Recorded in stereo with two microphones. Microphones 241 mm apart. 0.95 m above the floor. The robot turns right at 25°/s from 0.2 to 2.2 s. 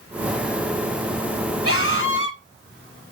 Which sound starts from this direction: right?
A scream, at 1.6 s.